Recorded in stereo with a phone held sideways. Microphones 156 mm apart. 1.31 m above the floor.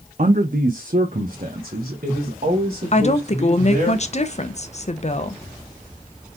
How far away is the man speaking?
About 0.6 m.